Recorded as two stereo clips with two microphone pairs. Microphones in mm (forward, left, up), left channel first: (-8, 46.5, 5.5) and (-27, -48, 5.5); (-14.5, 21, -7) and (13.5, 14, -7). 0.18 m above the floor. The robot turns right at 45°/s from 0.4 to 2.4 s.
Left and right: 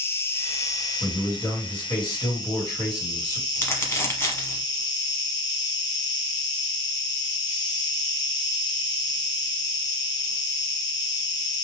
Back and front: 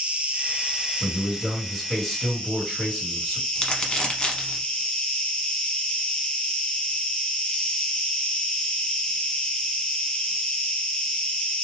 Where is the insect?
20° left, 0.9 m; by 11.6 s 110° left, 0.9 m.